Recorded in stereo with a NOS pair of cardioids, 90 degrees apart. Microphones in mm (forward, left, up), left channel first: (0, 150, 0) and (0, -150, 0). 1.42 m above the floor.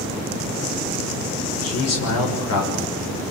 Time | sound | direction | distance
1.6 | a man speaking | 60° left | 7 m